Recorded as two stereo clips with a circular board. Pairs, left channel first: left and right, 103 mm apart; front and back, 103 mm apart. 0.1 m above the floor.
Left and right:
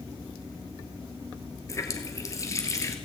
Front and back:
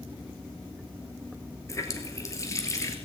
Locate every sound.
1.7 s a running tap: 45° left, 1.4 m